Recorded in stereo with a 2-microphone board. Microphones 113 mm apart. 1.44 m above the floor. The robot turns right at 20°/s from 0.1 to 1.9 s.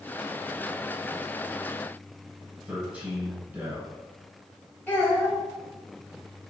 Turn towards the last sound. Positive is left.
turn(degrees=20)  # may be behind; listen again after turning